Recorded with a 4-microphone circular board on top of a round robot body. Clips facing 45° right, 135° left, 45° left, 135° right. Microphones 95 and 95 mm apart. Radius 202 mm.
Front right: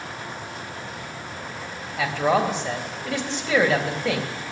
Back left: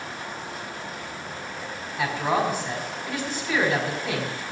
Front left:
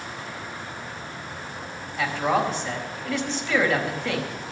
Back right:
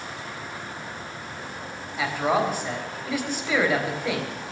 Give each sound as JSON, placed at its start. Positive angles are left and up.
{"t": 2.0, "sound": "a man speaking", "azimuth_deg": -55, "distance_m": 4.0}